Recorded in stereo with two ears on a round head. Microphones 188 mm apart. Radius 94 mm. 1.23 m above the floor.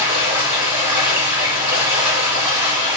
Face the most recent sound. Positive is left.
turn(degrees=-10)  # may be behind; listen again after turning